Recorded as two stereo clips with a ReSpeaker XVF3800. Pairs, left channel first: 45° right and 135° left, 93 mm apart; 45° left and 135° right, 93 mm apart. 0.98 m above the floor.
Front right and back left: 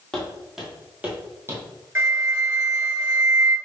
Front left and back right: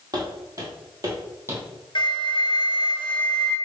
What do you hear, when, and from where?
0.1 s footsteps: 125° right, 1.3 m; by 1.6 s 175° left, 1.3 m
1.9 s a flute: 75° left, 0.8 m